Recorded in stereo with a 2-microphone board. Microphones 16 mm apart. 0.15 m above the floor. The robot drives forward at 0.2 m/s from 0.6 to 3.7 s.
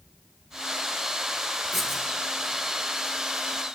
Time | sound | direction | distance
1.7 | writing | 5° right (ahead or behind) | 3 m